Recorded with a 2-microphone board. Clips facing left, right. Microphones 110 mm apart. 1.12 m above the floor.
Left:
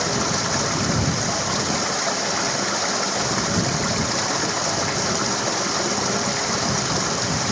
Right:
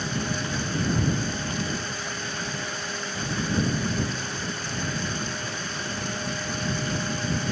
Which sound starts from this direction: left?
Running water, at 0.0 s.